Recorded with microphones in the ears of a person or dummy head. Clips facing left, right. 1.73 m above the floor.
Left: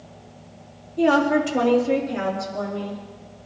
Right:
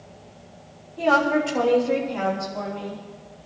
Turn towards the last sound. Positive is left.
turn(degrees=20)  # may be behind; listen again after turning